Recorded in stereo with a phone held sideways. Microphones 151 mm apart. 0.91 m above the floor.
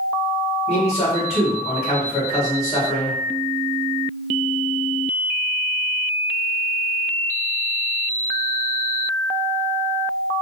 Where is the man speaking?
45° left (ahead or behind), 1.7 m.